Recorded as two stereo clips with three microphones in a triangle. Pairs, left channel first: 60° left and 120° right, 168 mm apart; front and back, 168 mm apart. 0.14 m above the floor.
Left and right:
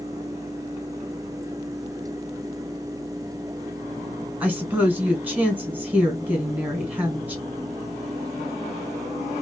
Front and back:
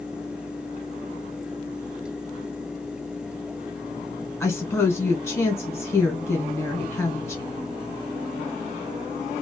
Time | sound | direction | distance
4.4 | a woman speaking | 50° right | 1.3 m